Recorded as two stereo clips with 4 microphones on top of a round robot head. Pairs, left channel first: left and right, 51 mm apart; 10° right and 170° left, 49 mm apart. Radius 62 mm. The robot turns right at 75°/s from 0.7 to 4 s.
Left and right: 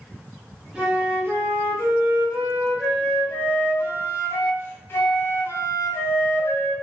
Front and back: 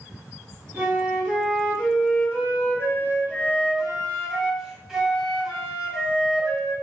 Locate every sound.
0.8 s a flute: 155° right, 1.4 m; by 6.7 s 90° left, 1.4 m